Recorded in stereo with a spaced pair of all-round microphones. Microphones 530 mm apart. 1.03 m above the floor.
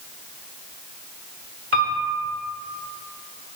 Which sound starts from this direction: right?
A piano, at 1.7 s.